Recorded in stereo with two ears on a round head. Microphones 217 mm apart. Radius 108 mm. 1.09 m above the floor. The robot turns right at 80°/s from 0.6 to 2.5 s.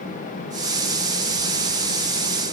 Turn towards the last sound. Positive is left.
No sound to turn to.